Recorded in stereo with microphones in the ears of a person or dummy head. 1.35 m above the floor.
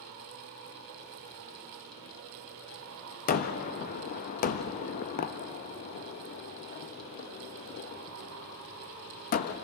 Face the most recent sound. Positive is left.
turn(degrees=45)  # may be behind; listen again after turning